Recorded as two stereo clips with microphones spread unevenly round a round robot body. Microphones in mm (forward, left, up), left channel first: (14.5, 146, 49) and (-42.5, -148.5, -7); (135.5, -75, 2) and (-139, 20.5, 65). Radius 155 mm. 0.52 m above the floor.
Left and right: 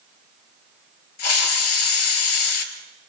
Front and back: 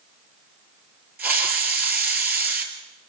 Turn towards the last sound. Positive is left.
turn(degrees=75)